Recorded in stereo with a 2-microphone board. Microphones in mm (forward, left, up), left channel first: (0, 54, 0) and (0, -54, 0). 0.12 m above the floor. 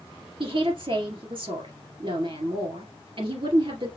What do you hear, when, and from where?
0.4 s a woman speaking: 55° right (ahead or behind), 2.0 m